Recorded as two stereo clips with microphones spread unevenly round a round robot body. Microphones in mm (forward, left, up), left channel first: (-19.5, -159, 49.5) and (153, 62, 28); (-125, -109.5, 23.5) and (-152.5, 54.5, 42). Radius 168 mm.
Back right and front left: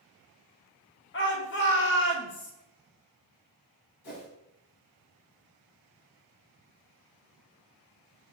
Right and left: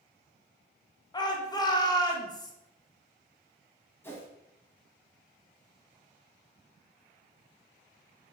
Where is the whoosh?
160° right, 1.6 m.